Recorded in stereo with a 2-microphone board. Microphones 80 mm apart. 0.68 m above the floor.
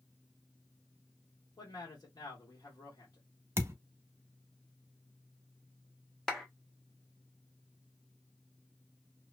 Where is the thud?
35° right (ahead or behind), 0.6 m.